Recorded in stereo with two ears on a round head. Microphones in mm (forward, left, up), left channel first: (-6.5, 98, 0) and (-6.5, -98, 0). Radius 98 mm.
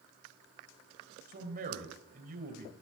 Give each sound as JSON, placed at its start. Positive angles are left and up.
{"t": 1.3, "sound": "a man speaking", "side_deg": -40, "distance_m": 2.5}